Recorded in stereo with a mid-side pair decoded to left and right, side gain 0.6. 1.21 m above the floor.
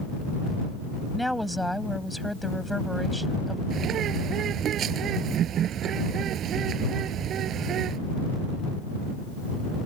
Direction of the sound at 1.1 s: Straight ahead.